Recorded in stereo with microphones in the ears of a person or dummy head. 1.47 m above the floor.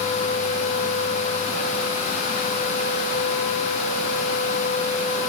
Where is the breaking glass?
No breaking glass in this recording.